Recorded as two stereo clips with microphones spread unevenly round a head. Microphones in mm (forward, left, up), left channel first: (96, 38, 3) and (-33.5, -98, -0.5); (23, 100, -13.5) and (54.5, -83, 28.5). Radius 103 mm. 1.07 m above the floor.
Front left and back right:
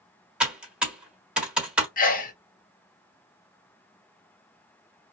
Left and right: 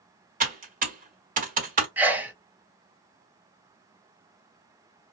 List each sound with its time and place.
0.4 s typing on a keyboard: 50° right, 1.3 m
2.0 s a sneeze: 5° left, 0.9 m